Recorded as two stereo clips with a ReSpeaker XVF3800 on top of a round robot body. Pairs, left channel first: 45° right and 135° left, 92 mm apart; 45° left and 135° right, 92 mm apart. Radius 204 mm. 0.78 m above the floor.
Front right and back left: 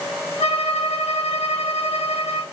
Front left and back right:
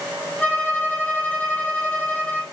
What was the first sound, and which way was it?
A violin, 30° right.